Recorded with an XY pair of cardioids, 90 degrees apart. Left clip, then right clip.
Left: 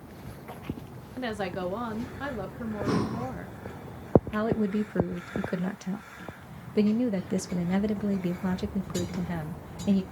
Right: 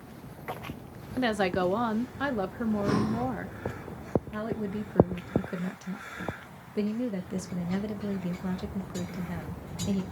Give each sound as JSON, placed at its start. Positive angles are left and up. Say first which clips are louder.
{"t": 1.2, "sound": "a woman speaking", "louder": "right 5 dB", "azimuth_deg": -45, "distance_m": 0.7}
{"t": 2.9, "sound": "breathing", "louder": "left 1 dB", "azimuth_deg": 10, "distance_m": 1.0}
{"t": 4.3, "sound": "a woman speaking", "louder": "left 6 dB", "azimuth_deg": 50, "distance_m": 0.8}